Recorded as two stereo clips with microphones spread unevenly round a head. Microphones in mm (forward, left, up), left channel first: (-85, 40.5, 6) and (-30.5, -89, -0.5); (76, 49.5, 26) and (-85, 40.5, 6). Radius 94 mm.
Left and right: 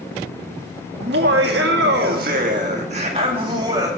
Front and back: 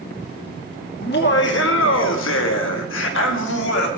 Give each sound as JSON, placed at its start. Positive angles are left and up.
{"t": 1.0, "sound": "laughter", "azimuth_deg": -40, "distance_m": 2.0}